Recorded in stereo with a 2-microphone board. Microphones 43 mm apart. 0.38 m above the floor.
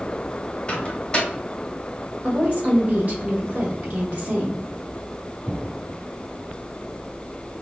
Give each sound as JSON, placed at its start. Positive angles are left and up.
{"t": 0.7, "sound": "a microwave", "side_deg": 25, "distance_m": 1.2}
{"t": 2.2, "sound": "a woman speaking", "side_deg": -40, "distance_m": 1.2}